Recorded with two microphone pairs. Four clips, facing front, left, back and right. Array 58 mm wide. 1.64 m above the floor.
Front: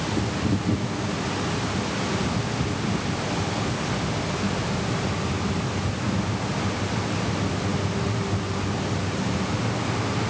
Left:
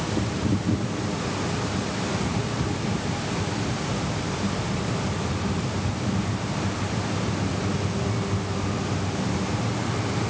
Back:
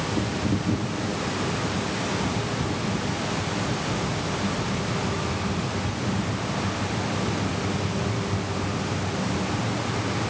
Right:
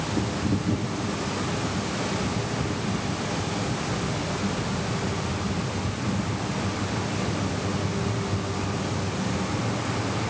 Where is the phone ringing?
No phone ringing in this recording.